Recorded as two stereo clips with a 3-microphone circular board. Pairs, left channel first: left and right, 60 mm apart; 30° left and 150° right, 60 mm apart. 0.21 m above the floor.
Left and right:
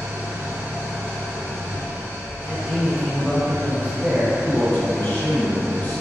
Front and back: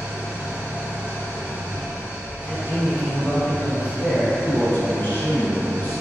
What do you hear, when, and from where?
0.0 s an engine running: 100° right, 1.0 m
2.5 s a man speaking: 35° right, 1.9 m
4.4 s a man speaking: 65° left, 1.5 m